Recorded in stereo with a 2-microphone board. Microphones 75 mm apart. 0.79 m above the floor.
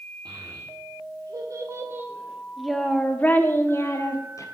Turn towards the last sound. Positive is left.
turn(degrees=45)  # may be behind; listen again after turning